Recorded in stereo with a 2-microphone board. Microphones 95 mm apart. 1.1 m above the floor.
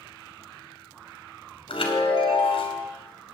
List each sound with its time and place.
1.7 s a chime: 65° left (ahead or behind), 2.5 m